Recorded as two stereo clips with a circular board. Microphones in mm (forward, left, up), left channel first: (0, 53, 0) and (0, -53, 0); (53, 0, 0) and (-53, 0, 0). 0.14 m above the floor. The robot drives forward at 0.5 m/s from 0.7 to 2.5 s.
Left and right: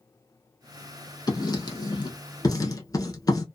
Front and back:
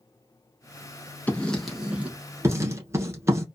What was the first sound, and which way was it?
Writing, 70° left.